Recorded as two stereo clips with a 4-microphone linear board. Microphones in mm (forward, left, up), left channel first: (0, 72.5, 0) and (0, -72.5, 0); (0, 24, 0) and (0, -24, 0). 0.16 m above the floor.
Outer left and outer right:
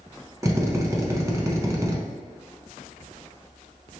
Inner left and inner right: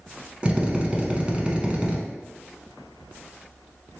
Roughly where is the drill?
Right.